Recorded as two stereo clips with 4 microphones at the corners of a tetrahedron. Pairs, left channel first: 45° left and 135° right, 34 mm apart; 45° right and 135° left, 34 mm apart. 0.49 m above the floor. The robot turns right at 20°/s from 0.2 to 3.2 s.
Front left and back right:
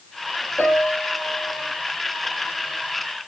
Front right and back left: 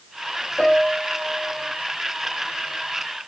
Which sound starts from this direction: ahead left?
A piano, at 0.6 s.